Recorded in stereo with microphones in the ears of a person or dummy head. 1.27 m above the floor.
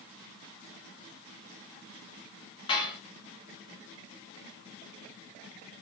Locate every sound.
2.7 s dishes clattering: 30° left (ahead or behind), 1.6 m